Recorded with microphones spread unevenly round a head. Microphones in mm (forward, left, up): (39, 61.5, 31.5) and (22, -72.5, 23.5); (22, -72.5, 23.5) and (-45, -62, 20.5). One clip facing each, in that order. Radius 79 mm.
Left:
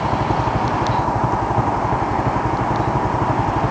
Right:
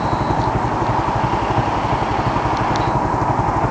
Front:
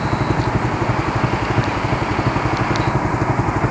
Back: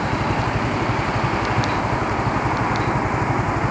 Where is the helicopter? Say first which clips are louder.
Right 1 dB, front 2 dB; 15° right; by 3.7 s 10° right.